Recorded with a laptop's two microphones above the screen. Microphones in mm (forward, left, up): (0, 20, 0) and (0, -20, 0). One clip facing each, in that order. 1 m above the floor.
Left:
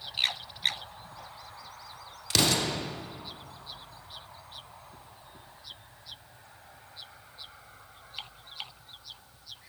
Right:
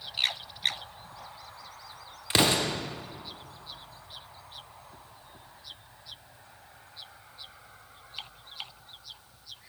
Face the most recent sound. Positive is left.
turn(degrees=-25)  # may be behind; listen again after turning